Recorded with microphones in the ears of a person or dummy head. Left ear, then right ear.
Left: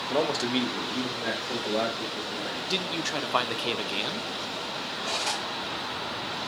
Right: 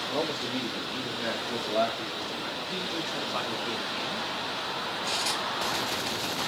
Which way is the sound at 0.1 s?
75° left (ahead or behind).